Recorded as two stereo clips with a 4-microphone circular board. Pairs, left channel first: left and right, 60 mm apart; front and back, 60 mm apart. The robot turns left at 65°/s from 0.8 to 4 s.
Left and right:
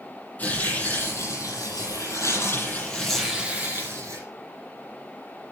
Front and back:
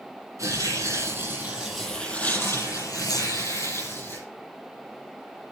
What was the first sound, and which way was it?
Tearing paper, 155° left.